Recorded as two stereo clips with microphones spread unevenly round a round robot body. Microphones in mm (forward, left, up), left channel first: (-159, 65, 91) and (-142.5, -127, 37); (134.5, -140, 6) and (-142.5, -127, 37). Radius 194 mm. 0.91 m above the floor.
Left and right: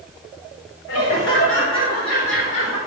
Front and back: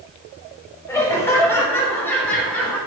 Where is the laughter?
75° left, 4 m; by 2.8 s 85° left, 5 m.